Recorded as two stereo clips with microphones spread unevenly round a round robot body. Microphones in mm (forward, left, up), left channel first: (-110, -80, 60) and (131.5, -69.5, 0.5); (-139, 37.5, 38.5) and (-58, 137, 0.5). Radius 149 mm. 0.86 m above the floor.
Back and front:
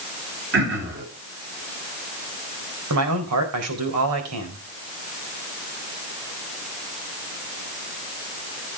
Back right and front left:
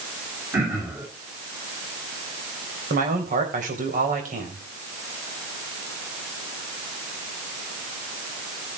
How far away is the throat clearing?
About 7.5 m.